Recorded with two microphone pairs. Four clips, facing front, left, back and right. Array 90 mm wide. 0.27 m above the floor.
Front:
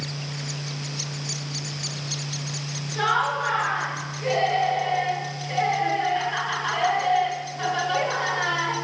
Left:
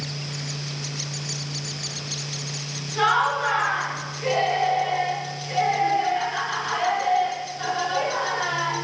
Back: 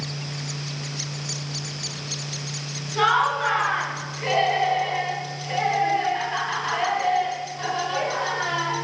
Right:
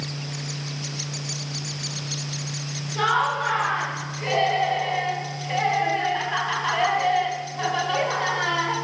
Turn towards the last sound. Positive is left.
turn(degrees=-80)